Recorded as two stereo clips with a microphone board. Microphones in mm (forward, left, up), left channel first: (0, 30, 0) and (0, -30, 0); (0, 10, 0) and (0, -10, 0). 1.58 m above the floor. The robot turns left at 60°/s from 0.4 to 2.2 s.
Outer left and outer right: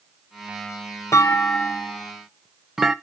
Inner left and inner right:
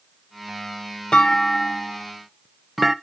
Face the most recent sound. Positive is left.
turn(degrees=-5)  # may be behind; listen again after turning